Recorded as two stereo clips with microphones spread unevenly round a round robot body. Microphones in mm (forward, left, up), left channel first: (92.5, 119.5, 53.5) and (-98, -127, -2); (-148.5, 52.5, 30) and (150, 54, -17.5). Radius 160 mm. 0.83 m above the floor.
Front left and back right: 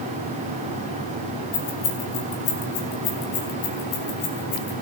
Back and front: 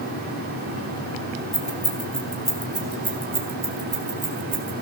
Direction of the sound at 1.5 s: 90° left.